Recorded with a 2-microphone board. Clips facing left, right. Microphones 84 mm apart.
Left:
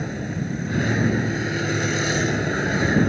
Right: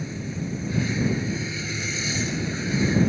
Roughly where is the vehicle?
Left.